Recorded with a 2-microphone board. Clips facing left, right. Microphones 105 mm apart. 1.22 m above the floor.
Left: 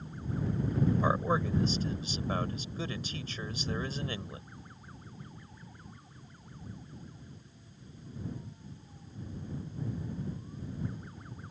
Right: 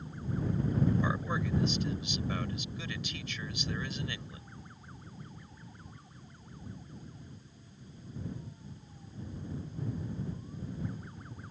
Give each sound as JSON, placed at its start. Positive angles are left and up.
{"t": 1.0, "sound": "a man speaking", "side_deg": 35}